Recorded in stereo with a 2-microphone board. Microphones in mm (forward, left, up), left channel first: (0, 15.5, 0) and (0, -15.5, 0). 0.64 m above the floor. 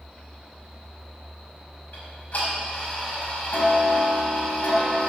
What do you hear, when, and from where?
1.9 s ticking: 60° left (ahead or behind), 5 m